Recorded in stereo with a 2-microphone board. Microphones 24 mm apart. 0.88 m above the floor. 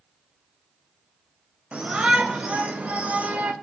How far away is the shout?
About 4.5 m.